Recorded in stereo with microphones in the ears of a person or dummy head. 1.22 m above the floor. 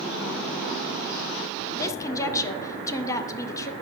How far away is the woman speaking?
About 0.5 m.